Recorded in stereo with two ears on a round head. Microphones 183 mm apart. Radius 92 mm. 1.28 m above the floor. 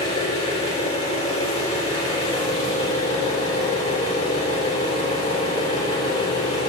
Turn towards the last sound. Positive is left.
turn(degrees=20)  # may be behind; listen again after turning